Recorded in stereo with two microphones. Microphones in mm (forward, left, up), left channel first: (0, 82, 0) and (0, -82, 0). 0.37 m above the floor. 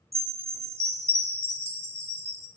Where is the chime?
40° right (ahead or behind), 0.7 m.